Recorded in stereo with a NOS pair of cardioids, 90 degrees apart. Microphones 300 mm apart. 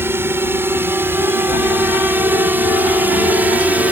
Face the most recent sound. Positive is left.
turn(degrees=-5)